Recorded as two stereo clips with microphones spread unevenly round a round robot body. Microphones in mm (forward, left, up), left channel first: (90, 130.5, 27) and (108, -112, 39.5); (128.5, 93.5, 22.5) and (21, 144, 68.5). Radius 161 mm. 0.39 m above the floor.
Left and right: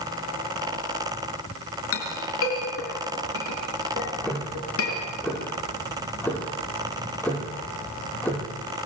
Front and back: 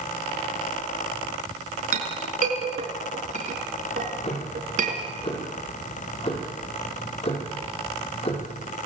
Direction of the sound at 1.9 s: 140° left.